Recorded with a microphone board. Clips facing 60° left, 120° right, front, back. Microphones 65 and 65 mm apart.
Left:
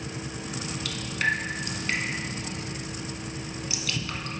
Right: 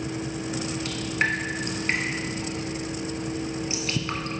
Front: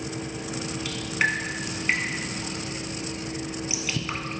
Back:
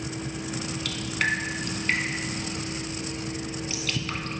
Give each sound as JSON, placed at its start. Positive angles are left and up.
{"t": 0.8, "sound": "dripping", "azimuth_deg": -75, "distance_m": 0.7}